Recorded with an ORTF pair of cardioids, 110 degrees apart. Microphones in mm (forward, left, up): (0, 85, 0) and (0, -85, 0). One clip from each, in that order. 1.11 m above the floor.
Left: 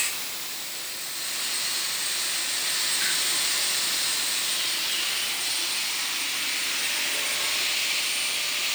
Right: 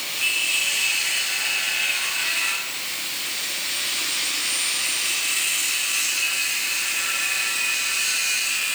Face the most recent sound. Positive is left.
No sound to turn to.